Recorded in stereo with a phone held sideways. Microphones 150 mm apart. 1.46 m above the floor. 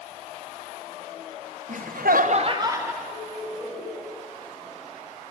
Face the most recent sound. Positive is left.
turn(degrees=-15)  # may be behind; listen again after turning